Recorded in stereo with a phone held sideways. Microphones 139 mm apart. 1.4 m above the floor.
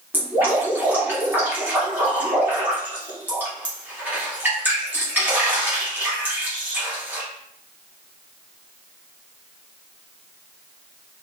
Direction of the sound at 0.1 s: 15° right (ahead or behind).